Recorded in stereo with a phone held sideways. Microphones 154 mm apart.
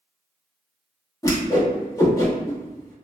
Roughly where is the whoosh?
Left.